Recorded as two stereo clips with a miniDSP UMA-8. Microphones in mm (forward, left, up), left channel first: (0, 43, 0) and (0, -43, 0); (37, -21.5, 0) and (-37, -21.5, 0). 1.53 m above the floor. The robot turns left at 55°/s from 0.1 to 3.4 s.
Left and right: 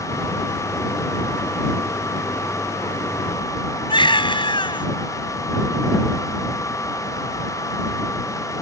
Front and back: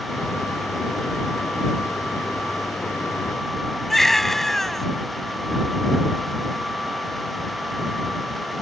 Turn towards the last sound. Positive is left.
turn(degrees=85)